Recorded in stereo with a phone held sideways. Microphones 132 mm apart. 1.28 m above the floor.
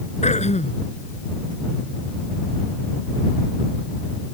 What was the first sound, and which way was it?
Throat clearing, 65° left (ahead or behind).